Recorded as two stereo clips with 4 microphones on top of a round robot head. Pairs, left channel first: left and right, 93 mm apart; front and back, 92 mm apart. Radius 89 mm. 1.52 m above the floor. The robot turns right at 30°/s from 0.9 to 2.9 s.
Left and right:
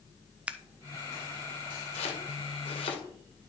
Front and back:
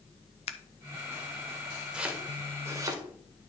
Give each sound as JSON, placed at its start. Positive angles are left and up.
{"t": 0.5, "sound": "scissors", "azimuth_deg": -15, "distance_m": 0.9}
{"t": 1.9, "sound": "chopping", "azimuth_deg": 100, "distance_m": 2.0}